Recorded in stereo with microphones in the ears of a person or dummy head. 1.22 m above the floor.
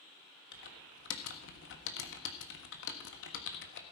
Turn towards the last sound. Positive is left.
turn(degrees=70)  # may be behind; listen again after turning